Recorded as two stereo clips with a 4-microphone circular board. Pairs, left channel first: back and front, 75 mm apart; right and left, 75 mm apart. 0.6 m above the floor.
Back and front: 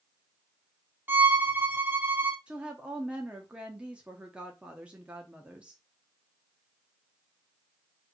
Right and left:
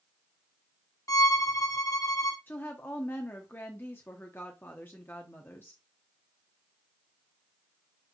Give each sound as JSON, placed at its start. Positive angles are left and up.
{"t": 1.1, "sound": "a violin", "azimuth_deg": -55, "distance_m": 0.7}
{"t": 2.5, "sound": "a woman speaking", "azimuth_deg": -60, "distance_m": 0.8}